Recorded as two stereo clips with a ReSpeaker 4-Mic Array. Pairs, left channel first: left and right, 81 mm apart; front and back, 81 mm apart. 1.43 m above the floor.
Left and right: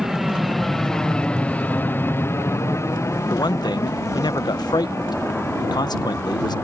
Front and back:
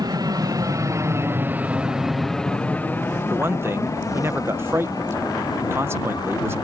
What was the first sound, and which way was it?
An aircraft, 175° right.